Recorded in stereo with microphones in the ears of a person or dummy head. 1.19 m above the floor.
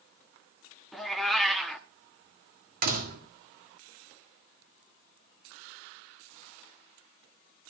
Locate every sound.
0.9 s a cat meowing: centre (ahead or behind), 1.0 m
2.8 s a door slam: 50° right (ahead or behind), 1.8 m